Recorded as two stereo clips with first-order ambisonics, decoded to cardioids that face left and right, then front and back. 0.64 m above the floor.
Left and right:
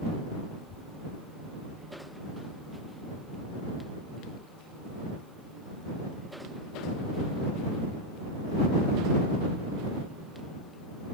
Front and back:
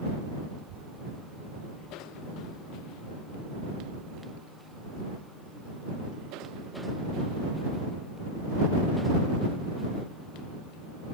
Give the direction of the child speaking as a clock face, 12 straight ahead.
7 o'clock.